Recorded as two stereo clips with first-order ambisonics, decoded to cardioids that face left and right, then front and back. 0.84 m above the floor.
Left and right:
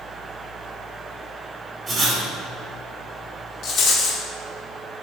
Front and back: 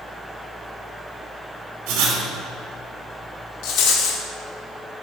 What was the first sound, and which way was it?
Writing, 165° right.